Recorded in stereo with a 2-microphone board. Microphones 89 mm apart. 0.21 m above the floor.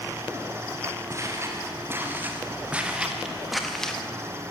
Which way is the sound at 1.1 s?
35° right (ahead or behind).